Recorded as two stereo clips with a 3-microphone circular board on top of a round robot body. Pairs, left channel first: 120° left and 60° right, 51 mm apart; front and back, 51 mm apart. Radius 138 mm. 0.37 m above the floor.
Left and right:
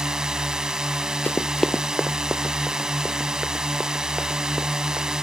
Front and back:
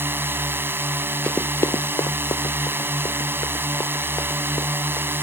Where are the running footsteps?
75° left; by 5.1 s 10° left.